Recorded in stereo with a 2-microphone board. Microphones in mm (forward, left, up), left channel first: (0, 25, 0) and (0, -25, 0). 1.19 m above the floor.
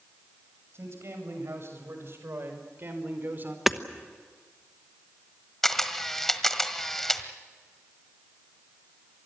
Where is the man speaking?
65° right (ahead or behind), 7 m; by 3.6 s 45° right (ahead or behind), 4 m.